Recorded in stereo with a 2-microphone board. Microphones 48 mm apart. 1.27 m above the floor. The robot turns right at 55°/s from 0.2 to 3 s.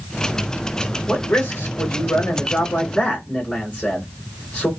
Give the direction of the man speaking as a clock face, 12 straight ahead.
10 o'clock.